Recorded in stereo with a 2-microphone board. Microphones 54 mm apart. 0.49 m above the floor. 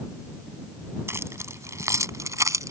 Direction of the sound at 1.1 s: 50° right (ahead or behind).